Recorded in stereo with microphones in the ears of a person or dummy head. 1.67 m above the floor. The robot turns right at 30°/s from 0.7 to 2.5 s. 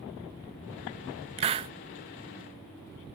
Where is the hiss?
30° right (ahead or behind), 0.5 m; by 1.7 s 25° right (ahead or behind), 0.5 m.